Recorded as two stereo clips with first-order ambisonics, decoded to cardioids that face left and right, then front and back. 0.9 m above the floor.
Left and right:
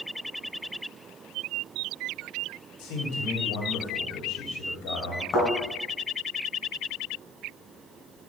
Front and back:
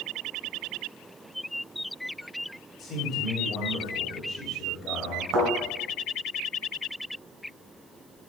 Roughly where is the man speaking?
Ahead left.